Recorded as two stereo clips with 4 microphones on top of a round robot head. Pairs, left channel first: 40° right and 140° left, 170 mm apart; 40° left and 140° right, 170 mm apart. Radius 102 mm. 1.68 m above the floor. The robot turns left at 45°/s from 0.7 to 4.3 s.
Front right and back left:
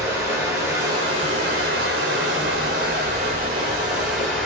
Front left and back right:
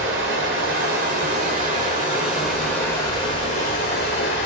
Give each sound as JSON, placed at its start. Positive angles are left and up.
{"t": 0.0, "sound": "running water", "azimuth_deg": -150, "distance_m": 1.2}